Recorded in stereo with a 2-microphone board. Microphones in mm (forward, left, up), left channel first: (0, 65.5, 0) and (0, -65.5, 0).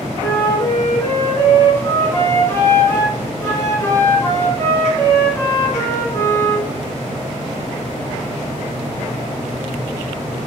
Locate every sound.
0.2 s a flute: 20° left (ahead or behind), 1.0 m